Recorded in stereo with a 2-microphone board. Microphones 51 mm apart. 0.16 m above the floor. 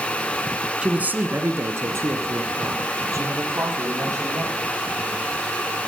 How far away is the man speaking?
About 1.3 m.